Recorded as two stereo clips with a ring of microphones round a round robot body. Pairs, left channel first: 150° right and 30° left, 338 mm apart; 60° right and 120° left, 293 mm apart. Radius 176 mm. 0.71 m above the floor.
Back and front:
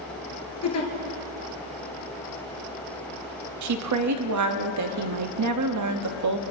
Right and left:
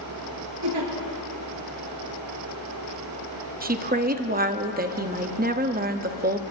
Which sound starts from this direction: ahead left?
A woman speaking, at 3.6 s.